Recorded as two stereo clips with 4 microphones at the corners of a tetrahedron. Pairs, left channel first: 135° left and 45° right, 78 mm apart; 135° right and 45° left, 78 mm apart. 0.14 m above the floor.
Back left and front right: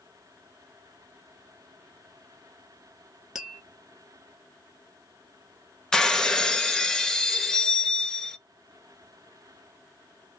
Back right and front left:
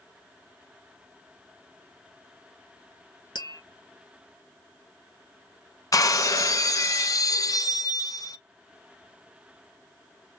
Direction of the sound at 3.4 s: 125° right.